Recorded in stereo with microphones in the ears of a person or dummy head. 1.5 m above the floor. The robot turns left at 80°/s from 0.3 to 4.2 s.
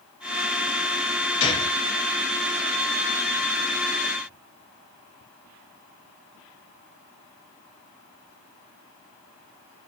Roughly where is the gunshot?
Left.